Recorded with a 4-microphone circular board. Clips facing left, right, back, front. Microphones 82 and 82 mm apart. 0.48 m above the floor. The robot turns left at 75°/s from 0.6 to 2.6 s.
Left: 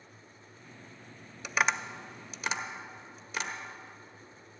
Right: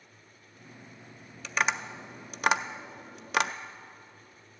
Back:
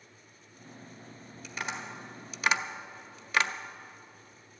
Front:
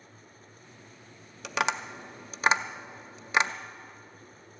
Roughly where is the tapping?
Ahead.